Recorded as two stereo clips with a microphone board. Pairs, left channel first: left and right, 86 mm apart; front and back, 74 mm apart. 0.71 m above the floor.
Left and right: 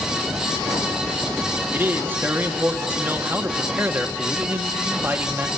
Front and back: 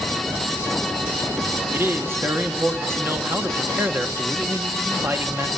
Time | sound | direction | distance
1.7 | a man speaking | 145° right | 1.1 m